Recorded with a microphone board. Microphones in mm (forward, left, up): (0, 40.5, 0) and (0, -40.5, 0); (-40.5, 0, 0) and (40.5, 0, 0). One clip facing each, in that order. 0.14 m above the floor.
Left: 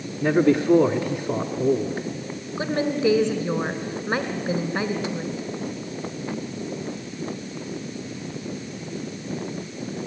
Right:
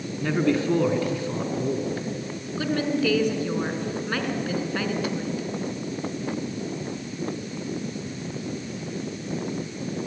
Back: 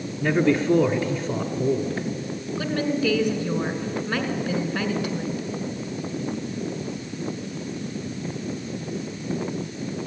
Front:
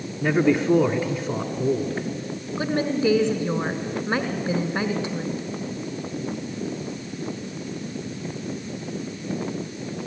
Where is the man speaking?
55° left, 1.1 m.